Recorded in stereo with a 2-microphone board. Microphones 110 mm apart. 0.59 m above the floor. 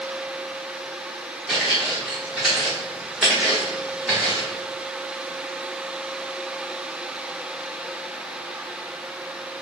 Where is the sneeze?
I don't hear a sneeze.